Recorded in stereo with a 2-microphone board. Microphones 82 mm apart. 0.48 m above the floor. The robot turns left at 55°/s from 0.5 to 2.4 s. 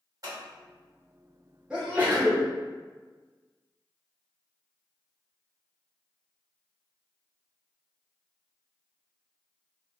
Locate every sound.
0.2 s scissors: 45° right (ahead or behind), 1.5 m
1.7 s a sneeze: 15° right, 1.0 m; by 2.5 s 55° right, 1.0 m